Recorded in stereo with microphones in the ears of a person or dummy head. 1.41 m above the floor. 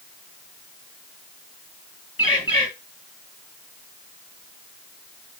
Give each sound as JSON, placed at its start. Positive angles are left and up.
{"t": 2.2, "sound": "a bird", "side_deg": 20, "distance_m": 5.0}